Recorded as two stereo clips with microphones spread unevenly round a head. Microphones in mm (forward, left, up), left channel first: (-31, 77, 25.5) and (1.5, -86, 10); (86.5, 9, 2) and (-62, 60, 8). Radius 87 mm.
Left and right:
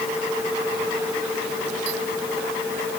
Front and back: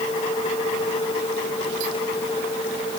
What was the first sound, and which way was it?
Only background noise.